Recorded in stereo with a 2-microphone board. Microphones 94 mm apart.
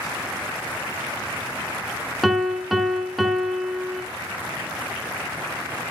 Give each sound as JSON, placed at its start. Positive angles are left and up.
{"t": 2.2, "sound": "a piano", "side_deg": 0, "distance_m": 0.9}